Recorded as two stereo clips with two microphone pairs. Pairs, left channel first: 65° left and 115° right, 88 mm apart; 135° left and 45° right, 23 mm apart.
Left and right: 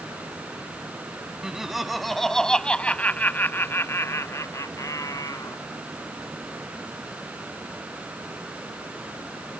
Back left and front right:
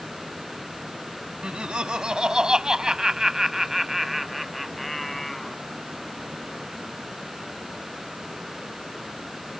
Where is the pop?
No pop in this recording.